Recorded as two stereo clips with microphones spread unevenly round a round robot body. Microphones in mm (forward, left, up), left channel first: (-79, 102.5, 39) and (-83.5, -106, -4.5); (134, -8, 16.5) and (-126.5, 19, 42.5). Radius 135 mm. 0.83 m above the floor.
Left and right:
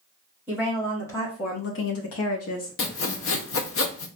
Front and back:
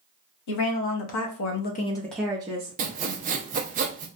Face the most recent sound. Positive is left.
turn(degrees=110)